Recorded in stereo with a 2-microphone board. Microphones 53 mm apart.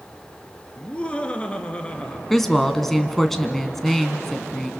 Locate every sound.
0.8 s laughter: 25° left (ahead or behind), 2 m
2.3 s a woman speaking: 5° left (ahead or behind), 1.6 m